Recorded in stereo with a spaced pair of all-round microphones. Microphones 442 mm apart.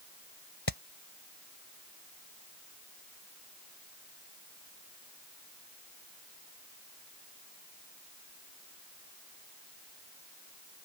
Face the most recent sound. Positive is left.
turn(degrees=60)  # may be behind; listen again after turning